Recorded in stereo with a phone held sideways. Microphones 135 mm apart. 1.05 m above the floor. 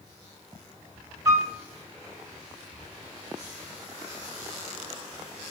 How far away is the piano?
About 1.3 m.